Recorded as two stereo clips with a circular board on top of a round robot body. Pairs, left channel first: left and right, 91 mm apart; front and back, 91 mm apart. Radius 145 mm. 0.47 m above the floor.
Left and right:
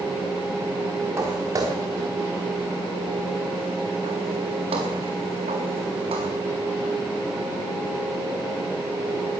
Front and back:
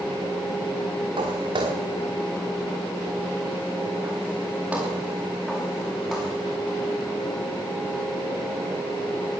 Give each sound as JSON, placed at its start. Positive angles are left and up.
{"t": 1.2, "sound": "footsteps", "azimuth_deg": -150, "distance_m": 3.0}